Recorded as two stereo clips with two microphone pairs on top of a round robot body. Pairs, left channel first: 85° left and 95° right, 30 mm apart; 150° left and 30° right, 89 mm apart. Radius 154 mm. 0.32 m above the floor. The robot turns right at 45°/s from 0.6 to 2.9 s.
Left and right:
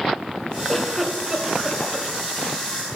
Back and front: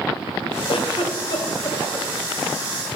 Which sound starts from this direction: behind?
A giggle, at 0.7 s.